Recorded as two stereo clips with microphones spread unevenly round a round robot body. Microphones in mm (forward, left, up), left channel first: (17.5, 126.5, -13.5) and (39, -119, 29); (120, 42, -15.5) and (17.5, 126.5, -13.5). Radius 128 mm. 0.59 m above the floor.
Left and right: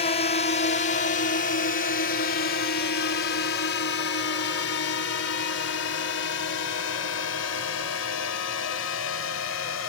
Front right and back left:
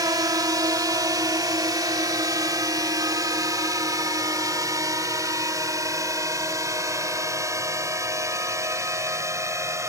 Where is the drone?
110° left; by 9.9 s 75° left.